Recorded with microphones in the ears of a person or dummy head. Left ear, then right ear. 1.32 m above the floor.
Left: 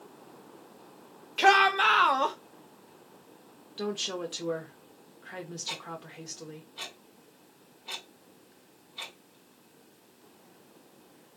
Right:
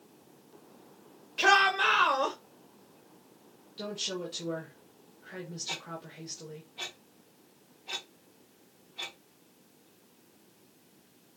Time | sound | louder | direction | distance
1.4 | a shout | left 2 dB | 25° left (ahead or behind) | 0.5 m
3.8 | a woman speaking | left 3 dB | 35° left (ahead or behind) | 0.5 m
5.7 | ticking | even | 35° left (ahead or behind) | 1.7 m